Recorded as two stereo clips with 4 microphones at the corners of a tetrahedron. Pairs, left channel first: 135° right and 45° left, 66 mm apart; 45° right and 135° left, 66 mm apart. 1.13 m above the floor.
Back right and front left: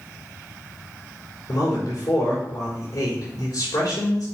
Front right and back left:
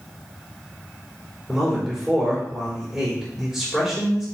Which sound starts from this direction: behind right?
A man speaking, at 1.5 s.